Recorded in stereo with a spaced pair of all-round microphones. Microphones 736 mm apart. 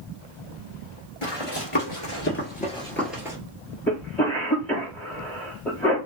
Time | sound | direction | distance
1.2 | running footsteps | 35° left (ahead or behind) | 1.5 m
3.9 | a cough | centre (ahead or behind) | 1.3 m